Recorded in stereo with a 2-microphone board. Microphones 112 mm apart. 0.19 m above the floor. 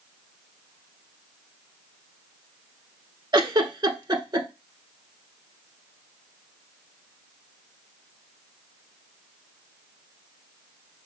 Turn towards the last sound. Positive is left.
turn(degrees=-40)  # may be behind; listen again after turning